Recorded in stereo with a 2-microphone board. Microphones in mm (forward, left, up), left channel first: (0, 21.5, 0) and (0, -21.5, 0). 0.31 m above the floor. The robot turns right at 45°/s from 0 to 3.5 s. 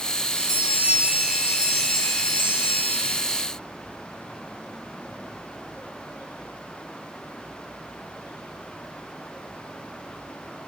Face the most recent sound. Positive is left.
turn(degrees=95)